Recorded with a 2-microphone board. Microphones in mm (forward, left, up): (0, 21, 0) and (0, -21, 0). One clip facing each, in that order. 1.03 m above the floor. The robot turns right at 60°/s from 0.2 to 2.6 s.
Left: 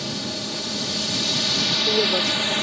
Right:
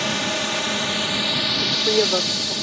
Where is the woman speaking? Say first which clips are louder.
Right 1 dB; 60° right; by 2.5 s 5° right.